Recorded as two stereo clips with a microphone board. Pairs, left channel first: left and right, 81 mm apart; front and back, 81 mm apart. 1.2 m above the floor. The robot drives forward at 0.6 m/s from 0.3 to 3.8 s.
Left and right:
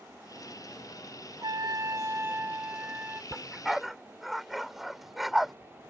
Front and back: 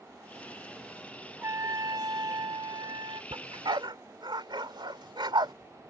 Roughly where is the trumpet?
Behind right.